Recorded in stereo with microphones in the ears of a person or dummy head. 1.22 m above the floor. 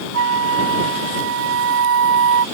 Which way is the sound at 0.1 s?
65° right (ahead or behind).